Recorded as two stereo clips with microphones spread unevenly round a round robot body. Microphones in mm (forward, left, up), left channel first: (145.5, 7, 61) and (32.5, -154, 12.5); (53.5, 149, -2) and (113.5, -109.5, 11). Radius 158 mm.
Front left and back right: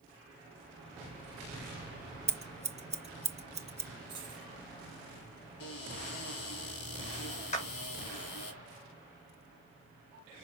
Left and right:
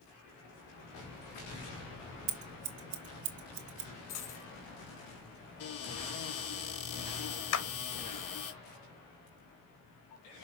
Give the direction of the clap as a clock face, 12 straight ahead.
8 o'clock.